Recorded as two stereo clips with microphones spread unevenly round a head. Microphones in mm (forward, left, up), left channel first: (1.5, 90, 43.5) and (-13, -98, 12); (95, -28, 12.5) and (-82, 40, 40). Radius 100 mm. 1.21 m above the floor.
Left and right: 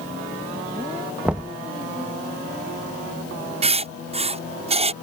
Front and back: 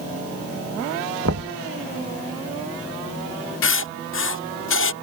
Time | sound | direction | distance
1.2 | knocking | straight behind | ?
3.6 | writing | 35° right | ?